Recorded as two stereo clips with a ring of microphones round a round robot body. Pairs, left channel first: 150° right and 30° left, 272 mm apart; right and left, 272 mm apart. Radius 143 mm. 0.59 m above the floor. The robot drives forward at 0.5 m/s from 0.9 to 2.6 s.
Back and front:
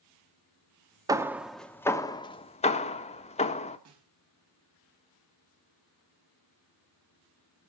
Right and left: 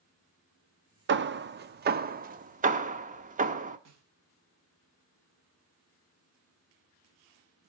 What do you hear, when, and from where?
1.1 s hammering: 100° left, 0.9 m; by 3.8 s 145° left, 1.3 m
3.9 s a snare drum: 60° left, 4 m